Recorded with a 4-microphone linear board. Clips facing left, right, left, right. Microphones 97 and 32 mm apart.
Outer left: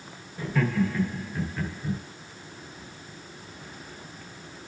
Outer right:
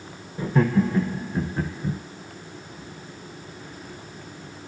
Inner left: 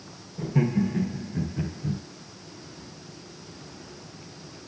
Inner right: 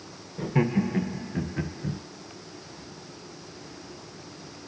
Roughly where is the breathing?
I don't hear breathing.